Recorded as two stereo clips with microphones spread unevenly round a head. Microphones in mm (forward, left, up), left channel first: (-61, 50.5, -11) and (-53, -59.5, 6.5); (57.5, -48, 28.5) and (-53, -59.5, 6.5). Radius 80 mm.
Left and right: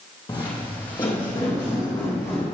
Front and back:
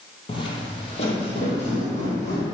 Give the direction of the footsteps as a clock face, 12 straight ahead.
11 o'clock.